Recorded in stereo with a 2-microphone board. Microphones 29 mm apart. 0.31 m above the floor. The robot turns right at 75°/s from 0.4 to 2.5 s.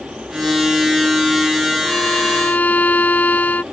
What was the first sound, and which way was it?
A violin, 45° left.